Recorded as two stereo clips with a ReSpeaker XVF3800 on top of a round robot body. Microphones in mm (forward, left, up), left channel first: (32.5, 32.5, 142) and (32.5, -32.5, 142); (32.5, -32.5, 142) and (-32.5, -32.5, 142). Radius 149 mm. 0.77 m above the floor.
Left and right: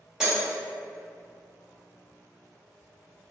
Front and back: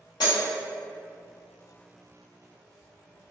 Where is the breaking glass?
10° right, 1.2 m.